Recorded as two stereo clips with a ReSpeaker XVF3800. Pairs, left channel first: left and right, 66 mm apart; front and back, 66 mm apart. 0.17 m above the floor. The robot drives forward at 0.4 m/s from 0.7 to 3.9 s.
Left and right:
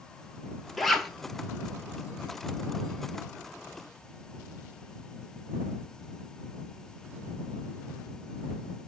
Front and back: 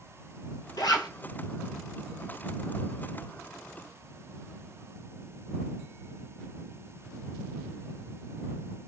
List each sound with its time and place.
0.8 s a zipper: straight ahead, 0.6 m